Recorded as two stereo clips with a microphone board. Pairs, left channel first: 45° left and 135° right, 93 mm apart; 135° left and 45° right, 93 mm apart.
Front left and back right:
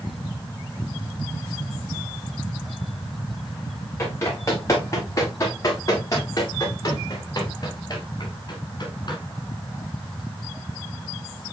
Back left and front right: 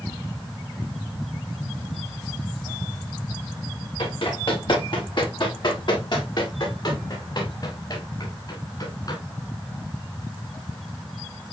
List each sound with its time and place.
4.0 s running footsteps: 105° left, 9 m; by 9.2 s 90° left, 9 m